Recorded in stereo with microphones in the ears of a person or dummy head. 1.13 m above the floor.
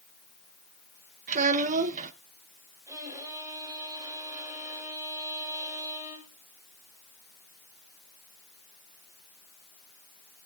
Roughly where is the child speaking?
Right.